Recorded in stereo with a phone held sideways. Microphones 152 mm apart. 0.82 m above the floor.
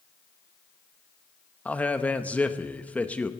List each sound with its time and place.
1.6 s a man speaking: 10° left (ahead or behind), 0.8 m